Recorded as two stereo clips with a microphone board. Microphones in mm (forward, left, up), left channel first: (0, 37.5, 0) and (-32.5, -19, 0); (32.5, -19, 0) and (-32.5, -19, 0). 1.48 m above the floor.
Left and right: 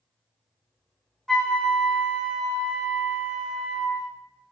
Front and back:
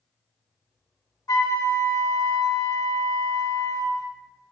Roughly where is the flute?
Ahead.